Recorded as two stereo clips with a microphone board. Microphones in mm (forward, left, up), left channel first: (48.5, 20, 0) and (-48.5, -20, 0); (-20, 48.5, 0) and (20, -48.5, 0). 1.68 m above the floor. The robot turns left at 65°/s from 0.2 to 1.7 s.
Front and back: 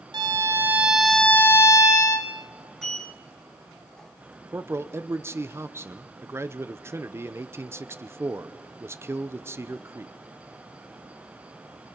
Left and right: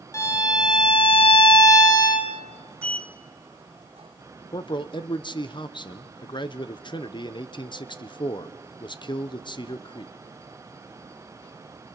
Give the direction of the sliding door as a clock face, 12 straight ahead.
2 o'clock.